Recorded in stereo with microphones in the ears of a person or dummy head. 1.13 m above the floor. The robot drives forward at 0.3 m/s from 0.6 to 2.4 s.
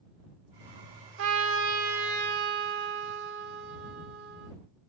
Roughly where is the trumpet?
Right.